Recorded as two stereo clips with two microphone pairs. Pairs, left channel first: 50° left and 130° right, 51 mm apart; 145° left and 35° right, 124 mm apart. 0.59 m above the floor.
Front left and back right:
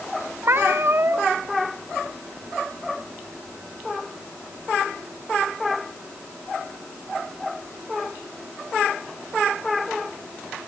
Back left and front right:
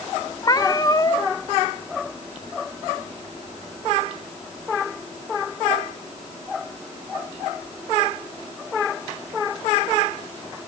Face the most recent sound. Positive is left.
turn(degrees=-160)